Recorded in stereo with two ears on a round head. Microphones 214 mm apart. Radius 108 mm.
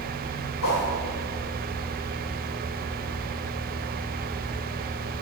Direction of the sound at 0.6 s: 70° left (ahead or behind).